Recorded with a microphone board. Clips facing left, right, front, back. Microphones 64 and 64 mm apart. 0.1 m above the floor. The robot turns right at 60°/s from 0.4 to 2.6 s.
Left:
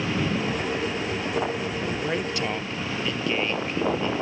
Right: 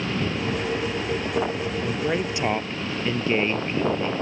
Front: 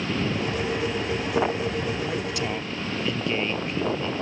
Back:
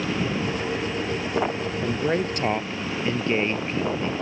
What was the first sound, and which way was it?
A woman speaking, 175° left.